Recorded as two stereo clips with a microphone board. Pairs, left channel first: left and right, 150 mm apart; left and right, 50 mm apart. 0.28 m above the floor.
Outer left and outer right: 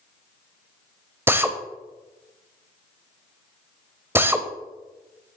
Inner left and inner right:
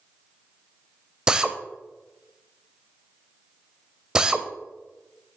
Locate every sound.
1.3 s a drill: 15° right (ahead or behind), 0.7 m